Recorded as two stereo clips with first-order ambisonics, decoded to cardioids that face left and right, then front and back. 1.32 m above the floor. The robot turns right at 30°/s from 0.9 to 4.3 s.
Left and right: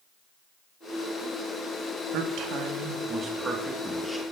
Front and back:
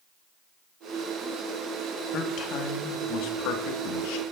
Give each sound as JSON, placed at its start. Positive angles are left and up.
{"t": 2.1, "sound": "a man speaking", "azimuth_deg": -55, "distance_m": 2.5}